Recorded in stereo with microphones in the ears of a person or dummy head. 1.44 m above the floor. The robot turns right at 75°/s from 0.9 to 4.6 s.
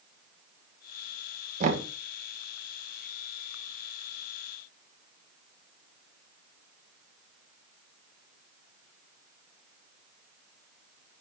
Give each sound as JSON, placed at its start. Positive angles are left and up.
{"t": 1.6, "sound": "knocking", "side_deg": -50, "distance_m": 1.5}